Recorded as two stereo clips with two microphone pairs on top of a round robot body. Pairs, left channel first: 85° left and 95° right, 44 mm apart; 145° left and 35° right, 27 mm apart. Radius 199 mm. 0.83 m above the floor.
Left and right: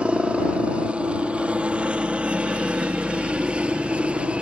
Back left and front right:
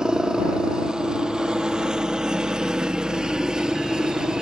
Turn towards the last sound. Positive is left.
turn(degrees=-60)